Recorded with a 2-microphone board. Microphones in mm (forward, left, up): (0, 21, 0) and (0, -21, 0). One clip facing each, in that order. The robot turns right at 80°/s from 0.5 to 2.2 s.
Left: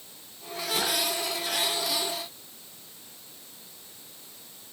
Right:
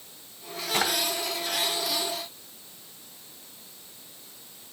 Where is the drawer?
55° right (ahead or behind), 2.5 m; by 0.9 s 70° right (ahead or behind), 2.5 m.